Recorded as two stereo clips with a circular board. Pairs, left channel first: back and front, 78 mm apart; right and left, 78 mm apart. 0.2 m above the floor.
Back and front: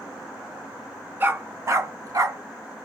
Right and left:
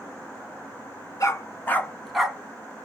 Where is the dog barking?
60° right, 0.9 m; by 2.4 s 15° left, 0.8 m.